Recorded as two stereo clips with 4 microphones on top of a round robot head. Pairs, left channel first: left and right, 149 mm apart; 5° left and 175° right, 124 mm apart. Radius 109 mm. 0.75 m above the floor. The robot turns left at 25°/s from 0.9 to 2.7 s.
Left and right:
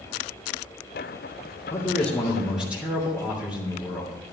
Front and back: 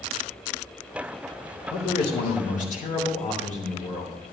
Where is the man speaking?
20° left, 3 m; by 4.1 s 5° right, 3 m.